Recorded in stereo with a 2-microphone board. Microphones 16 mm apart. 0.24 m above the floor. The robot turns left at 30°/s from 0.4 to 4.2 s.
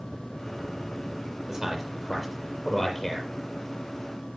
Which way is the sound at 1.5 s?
20° right (ahead or behind).